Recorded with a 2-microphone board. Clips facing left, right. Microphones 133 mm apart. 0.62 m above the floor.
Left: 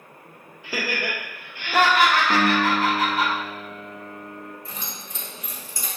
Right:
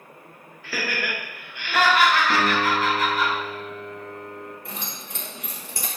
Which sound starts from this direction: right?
Keys jangling, at 4.7 s.